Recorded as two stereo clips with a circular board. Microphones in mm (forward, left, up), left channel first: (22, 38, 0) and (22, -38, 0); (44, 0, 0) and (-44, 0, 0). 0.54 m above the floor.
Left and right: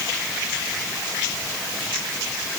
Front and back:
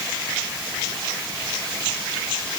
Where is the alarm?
No alarm in this recording.